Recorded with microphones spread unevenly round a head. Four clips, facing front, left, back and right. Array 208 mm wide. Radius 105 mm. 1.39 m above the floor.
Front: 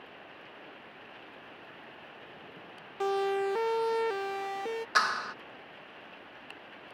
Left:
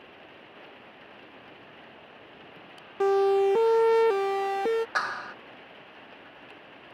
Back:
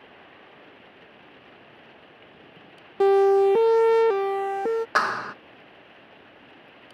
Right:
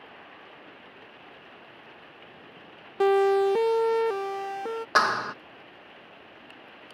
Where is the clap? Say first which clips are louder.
Right 7 dB, back 5 dB; 115° right.